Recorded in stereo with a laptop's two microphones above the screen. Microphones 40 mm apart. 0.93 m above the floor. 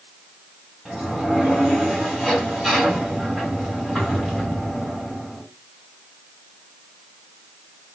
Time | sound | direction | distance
0.8 | a sliding door | 15° right (ahead or behind) | 2 m